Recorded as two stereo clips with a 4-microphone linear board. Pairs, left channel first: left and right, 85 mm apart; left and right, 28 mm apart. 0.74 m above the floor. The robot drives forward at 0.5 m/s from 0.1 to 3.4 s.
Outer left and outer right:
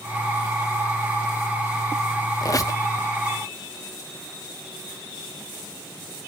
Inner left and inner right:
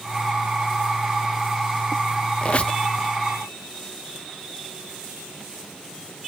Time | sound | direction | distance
2.4 | a squeak | 45° left (ahead or behind) | 0.7 m